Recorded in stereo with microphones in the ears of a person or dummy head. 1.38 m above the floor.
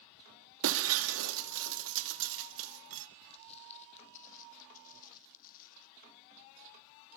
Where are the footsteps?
40° left (ahead or behind), 2.5 m; by 5.9 s 50° left (ahead or behind), 4.5 m.